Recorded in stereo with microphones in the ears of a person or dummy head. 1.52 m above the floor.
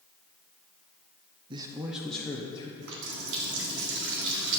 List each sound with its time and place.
1.5 s a man speaking: 30° right (ahead or behind), 0.7 m; by 2.7 s 25° left (ahead or behind), 1.1 m
2.8 s a running tap: 65° right (ahead or behind), 1.9 m